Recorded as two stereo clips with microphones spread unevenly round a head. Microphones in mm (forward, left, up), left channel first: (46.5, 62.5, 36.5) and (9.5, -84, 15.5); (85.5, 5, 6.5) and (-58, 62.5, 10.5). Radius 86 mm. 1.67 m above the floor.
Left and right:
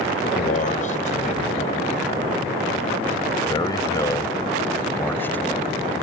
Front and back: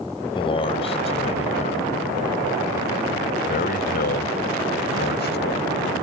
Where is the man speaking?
40° left; by 5.7 s 5° right.